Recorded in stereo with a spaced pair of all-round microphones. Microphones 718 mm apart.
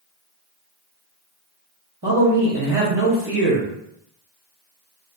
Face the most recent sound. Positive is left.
turn(degrees=-25)  # may be behind; listen again after turning